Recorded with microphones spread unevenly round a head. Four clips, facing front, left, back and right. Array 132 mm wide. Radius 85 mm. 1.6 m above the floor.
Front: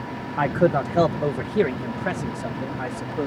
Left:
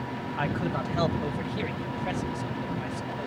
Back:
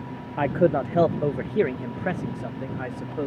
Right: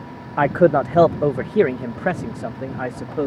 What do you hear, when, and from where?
0.4 s a man speaking: 100° right; by 3.3 s 85° right